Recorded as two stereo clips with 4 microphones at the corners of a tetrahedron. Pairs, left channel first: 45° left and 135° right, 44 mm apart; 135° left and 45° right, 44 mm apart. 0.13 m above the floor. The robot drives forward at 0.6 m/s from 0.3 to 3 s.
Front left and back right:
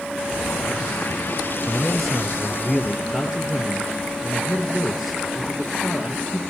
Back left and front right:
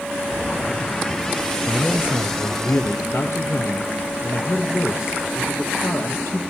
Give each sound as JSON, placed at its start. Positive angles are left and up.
{"t": 1.7, "sound": "a man speaking", "azimuth_deg": 125, "distance_m": 2.5}